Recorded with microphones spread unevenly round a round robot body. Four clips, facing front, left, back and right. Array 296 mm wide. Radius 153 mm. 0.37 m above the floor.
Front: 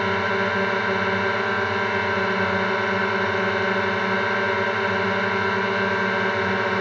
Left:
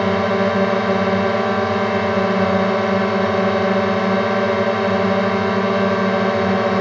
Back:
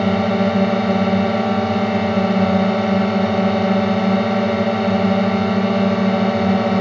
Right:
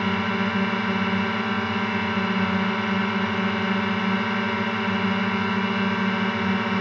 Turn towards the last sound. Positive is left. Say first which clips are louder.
# left 8 dB, back 6 dB
turn(degrees=155)